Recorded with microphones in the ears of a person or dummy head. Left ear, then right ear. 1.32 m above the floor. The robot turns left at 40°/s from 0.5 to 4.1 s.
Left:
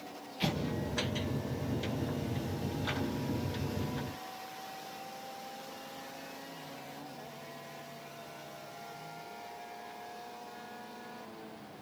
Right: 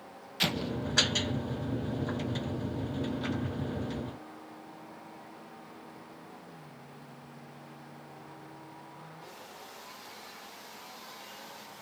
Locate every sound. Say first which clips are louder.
0.4 s an explosion: right 5 dB; 50° right (ahead or behind), 1.0 m; by 0.7 s 60° right (ahead or behind), 1.0 m